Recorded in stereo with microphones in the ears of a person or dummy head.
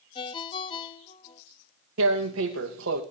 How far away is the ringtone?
About 1.5 m.